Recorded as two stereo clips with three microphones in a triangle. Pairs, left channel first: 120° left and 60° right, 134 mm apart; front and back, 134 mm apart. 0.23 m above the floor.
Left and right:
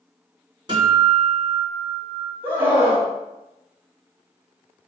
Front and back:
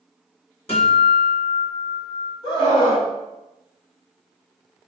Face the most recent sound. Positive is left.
turn(degrees=10)